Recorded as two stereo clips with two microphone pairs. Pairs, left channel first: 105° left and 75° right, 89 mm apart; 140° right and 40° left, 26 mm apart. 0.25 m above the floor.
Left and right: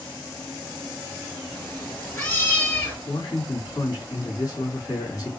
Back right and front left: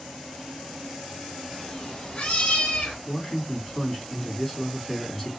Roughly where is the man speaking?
Behind left.